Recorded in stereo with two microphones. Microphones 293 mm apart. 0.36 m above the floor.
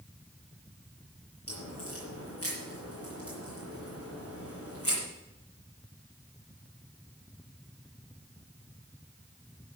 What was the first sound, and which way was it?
A crack, 50° left (ahead or behind).